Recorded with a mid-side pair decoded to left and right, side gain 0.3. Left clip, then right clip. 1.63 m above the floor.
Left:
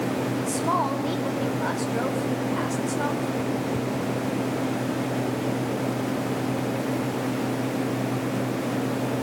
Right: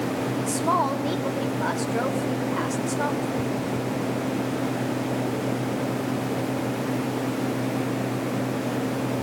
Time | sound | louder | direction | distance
0.5 | a woman speaking | right 2 dB | 25° right | 4.5 m